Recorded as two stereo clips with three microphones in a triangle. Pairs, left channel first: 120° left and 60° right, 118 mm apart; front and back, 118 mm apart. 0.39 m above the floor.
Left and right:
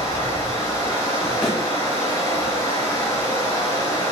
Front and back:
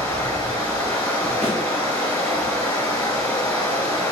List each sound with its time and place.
0.0 s running water: 60° left, 2 m
1.4 s a thud: 25° left, 1.5 m